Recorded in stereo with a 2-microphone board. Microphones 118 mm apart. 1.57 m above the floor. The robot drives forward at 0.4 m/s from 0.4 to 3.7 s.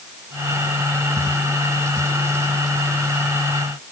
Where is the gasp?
I don't hear a gasp.